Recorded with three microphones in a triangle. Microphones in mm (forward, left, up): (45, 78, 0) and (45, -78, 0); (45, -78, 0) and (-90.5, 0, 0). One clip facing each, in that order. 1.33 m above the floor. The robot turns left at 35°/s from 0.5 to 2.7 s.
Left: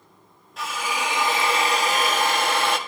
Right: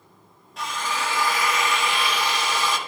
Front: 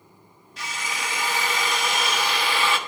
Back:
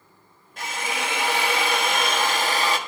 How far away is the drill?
About 1.4 m.